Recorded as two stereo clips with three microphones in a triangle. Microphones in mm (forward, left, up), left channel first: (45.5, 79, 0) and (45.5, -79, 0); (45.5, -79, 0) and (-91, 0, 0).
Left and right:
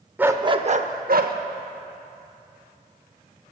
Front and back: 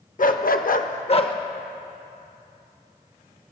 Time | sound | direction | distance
0.2 | a dog barking | 10° right | 0.6 m